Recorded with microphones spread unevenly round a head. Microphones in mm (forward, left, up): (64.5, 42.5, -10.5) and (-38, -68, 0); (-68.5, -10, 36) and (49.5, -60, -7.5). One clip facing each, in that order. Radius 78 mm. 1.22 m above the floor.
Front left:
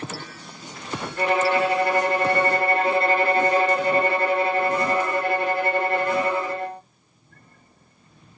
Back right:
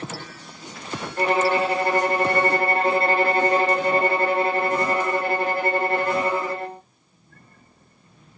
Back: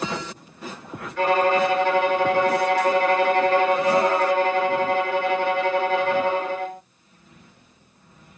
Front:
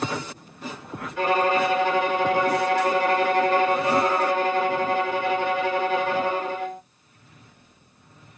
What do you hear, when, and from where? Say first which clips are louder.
1.2 s a violin: even, back 2 dB; 110° right, 1.3 m